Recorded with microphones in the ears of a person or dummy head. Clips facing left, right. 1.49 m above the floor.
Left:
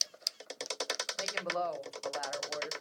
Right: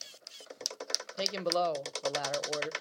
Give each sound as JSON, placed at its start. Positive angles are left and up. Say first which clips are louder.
{"t": 1.2, "sound": "a woman speaking", "louder": "right 6 dB", "side_deg": -50, "distance_m": 0.8}